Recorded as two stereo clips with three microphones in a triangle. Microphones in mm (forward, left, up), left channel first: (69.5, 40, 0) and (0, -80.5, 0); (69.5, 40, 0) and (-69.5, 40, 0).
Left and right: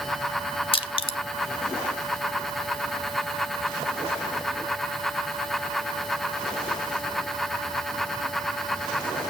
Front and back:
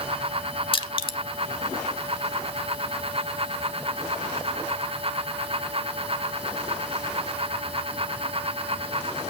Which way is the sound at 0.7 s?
30° left.